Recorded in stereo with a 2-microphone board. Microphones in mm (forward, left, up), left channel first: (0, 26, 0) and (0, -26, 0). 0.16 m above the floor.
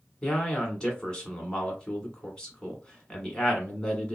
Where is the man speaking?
20° left (ahead or behind), 1.2 m.